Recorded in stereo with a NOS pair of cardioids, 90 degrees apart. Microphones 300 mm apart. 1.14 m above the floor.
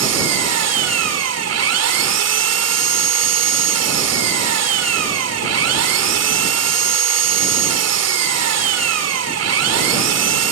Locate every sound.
0.0 s an engine running: 55° right